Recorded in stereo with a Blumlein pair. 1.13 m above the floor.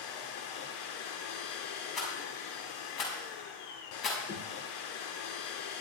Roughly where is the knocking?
Ahead left.